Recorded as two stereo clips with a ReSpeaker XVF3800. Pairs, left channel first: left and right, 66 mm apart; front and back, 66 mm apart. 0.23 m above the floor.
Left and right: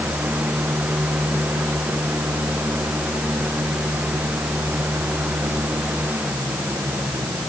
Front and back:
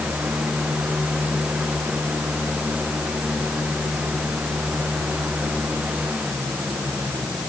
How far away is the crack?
No crack in this recording.